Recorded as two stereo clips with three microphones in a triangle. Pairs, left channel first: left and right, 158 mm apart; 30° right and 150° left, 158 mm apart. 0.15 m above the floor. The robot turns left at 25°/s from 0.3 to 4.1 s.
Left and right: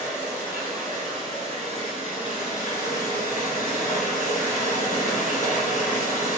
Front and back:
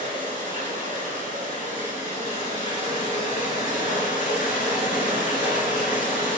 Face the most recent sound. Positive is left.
turn(degrees=80)